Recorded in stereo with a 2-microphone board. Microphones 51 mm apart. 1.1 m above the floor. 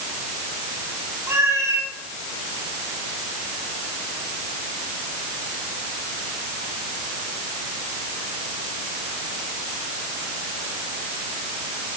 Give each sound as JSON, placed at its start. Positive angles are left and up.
{"t": 1.3, "sound": "a cat meowing", "side_deg": -75, "distance_m": 5.0}